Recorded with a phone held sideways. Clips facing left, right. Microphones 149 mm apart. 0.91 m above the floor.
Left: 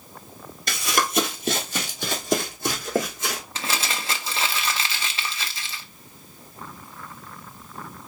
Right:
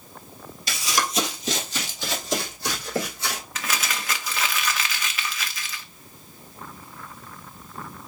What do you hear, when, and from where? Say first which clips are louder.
0.7 s running footsteps: left 2 dB; 55° left (ahead or behind), 1.4 m; by 3.4 s 45° left (ahead or behind), 3.5 m
3.5 s crumpling: left 1 dB; 30° left (ahead or behind), 0.7 m